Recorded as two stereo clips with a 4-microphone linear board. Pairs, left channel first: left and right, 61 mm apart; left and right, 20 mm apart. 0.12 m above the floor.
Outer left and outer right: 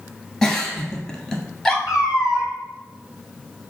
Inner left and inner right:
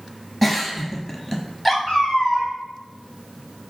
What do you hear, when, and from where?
0.4 s a giggle: 10° left (ahead or behind), 0.8 m
1.9 s a cat meowing: 70° left (ahead or behind), 1.6 m